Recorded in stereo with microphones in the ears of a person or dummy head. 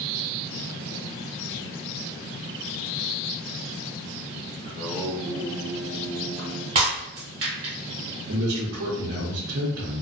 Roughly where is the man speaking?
Right.